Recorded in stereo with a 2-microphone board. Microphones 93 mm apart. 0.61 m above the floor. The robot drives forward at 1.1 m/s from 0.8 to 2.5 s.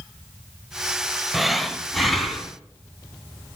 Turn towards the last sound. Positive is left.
turn(degrees=0)  # may be behind; listen again after turning